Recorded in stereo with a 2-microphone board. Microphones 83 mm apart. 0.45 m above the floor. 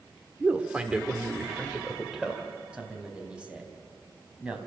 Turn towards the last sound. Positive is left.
turn(degrees=-15)  # may be behind; listen again after turning